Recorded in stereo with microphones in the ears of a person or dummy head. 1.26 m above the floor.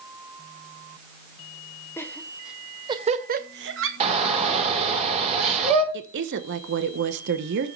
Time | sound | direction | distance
2.0 | laughter | 10° left (ahead or behind) | 0.9 m
4.0 | a shout | 30° right (ahead or behind) | 4 m
5.9 | a woman speaking | 60° right (ahead or behind) | 1.0 m